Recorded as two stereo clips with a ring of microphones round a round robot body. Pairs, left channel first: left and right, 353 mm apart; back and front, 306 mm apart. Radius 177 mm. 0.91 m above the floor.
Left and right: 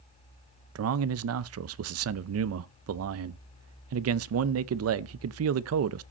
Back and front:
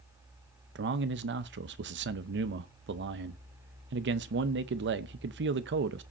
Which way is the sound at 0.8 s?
50° right.